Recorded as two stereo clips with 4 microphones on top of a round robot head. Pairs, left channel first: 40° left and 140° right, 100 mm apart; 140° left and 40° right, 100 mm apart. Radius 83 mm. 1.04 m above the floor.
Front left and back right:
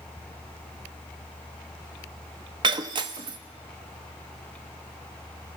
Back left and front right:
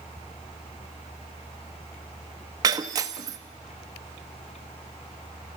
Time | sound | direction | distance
2.6 | breaking glass | 95° right | 0.6 m